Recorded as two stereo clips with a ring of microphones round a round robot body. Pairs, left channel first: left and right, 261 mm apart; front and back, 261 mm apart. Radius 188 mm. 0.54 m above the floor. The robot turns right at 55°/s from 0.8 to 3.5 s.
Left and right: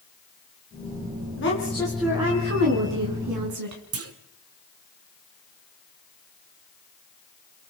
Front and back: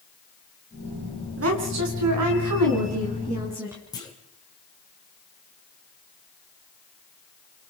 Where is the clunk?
75° right, 1.7 m.